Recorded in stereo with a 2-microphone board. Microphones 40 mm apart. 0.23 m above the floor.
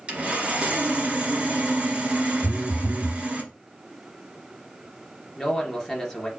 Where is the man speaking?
15° left (ahead or behind), 3 m.